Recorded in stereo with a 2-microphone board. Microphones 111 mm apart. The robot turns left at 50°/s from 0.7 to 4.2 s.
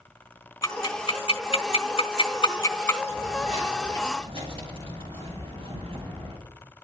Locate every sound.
0.6 s ticking: 50° left (ahead or behind), 3 m; by 3.0 s 15° left (ahead or behind), 3 m
3.1 s footsteps: 70° right (ahead or behind), 8.5 m; by 6.4 s 60° right (ahead or behind), 10 m